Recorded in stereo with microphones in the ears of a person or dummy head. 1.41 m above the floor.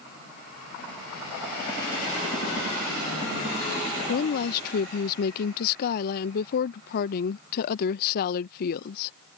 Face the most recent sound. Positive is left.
turn(degrees=50)  # may be behind; listen again after turning